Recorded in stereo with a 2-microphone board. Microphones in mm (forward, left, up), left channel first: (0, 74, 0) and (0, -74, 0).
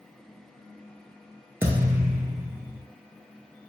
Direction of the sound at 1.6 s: 15° right (ahead or behind).